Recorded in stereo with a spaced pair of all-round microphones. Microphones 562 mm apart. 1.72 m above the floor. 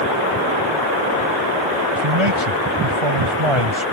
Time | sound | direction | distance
1.9 | a man speaking | 60° right (ahead or behind) | ?